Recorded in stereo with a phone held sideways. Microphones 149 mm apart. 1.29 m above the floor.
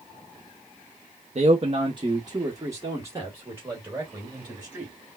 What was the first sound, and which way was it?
A man speaking, 50° right (ahead or behind).